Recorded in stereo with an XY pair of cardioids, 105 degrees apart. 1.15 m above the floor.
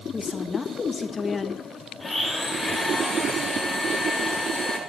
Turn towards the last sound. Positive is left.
turn(degrees=20)